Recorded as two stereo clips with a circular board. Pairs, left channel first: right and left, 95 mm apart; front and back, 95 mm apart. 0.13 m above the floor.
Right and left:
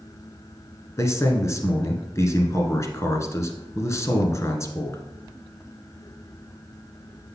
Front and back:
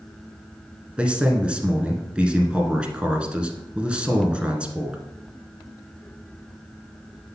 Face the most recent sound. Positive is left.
turn(degrees=-110)